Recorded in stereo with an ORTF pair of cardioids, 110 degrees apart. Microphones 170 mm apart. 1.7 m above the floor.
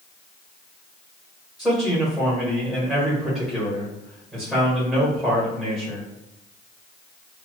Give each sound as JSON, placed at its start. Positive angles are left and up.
{"t": 1.6, "sound": "a man speaking", "azimuth_deg": -5, "distance_m": 1.8}